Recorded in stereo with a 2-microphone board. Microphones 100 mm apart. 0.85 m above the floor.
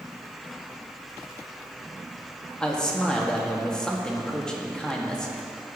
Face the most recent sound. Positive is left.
turn(degrees=5)  # may be behind; listen again after turning